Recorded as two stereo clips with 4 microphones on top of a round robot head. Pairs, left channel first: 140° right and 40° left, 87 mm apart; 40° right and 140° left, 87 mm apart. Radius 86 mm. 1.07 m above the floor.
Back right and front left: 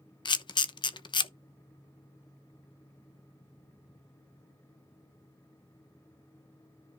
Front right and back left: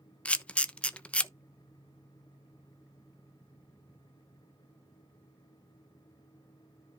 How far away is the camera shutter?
About 0.9 m.